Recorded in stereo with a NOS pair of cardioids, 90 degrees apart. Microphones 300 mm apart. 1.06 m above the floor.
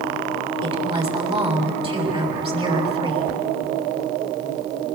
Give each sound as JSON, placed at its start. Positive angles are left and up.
{"t": 0.6, "sound": "a woman speaking", "azimuth_deg": -20, "distance_m": 7.0}